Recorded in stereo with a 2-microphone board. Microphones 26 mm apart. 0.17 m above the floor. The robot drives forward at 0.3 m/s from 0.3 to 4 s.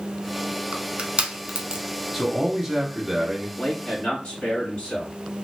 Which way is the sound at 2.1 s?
5° right (ahead or behind).